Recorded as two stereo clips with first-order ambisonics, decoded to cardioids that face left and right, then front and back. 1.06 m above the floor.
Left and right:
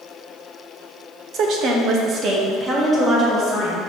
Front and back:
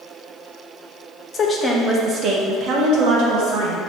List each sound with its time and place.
1.3 s a woman speaking: 65° right, 0.6 m; by 3.8 s straight behind, 1.1 m